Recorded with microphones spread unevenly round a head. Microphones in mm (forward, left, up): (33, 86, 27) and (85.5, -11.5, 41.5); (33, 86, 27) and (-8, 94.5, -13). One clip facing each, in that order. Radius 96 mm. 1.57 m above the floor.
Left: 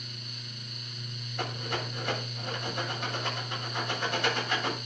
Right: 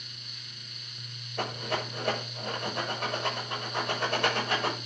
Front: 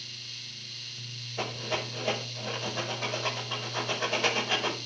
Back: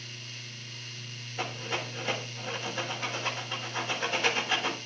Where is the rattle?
40° right, 7 m.